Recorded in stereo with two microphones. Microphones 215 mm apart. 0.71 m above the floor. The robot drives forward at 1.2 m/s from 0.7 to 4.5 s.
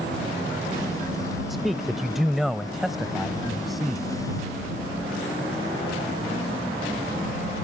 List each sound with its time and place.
1.5 s a man speaking: centre (ahead or behind)